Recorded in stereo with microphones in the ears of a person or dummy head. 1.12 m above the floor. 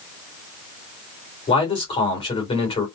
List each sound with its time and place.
1.5 s a man speaking: 35° left (ahead or behind), 2.5 m